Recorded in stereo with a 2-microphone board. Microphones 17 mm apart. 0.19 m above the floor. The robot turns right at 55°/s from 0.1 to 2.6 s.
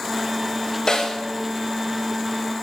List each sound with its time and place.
0.9 s a snare drum: 45° left (ahead or behind), 2 m; by 1.2 s 30° left (ahead or behind), 2 m